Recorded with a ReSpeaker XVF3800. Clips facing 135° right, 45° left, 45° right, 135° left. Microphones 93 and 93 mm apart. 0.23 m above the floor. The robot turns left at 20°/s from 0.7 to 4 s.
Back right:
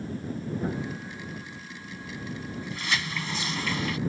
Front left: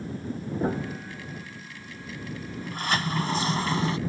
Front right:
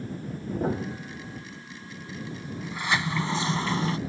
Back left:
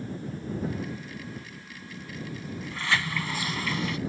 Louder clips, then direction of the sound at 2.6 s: Front left 5 dB, front right 1 dB; 25° left.